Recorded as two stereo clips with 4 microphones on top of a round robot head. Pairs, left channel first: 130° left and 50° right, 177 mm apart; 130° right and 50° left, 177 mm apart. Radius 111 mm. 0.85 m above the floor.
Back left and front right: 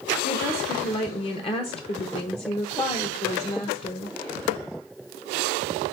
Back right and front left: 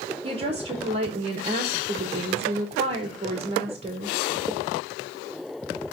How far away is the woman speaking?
About 1.0 m.